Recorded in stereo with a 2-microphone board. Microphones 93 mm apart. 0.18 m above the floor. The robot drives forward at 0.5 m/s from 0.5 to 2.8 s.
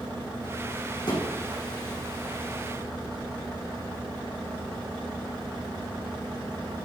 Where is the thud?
55° left (ahead or behind), 3.5 m.